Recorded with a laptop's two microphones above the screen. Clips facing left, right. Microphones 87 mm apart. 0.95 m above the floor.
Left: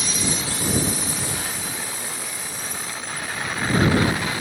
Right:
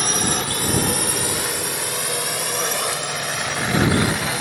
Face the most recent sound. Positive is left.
turn(degrees=-75)  # may be behind; listen again after turning